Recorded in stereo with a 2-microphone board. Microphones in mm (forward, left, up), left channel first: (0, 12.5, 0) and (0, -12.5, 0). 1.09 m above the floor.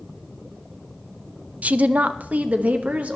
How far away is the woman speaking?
About 0.5 m.